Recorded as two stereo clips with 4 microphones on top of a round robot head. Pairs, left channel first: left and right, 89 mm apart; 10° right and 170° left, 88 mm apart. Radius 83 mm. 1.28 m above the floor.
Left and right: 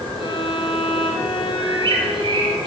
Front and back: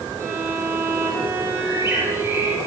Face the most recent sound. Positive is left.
turn(degrees=-120)